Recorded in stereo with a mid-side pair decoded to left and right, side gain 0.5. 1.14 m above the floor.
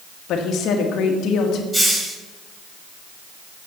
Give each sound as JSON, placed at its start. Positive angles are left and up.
{"t": 0.3, "sound": "a woman speaking", "azimuth_deg": 70, "distance_m": 1.6}
{"t": 1.7, "sound": "a hiss", "azimuth_deg": -15, "distance_m": 2.5}